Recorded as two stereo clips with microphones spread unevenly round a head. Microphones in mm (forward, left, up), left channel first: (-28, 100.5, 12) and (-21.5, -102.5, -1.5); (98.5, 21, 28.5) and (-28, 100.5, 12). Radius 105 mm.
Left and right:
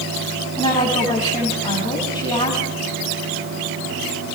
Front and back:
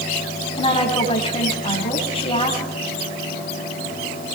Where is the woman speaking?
20° left, 6.5 m.